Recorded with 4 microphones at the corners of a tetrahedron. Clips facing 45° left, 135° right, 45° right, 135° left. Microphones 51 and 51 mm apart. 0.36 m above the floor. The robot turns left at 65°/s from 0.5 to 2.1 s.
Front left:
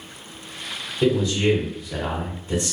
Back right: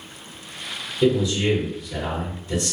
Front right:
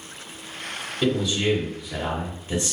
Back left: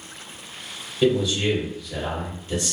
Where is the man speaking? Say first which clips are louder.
Even, back left 2 dB; 75° left, 1.2 m; by 2.7 s 5° left, 1.2 m.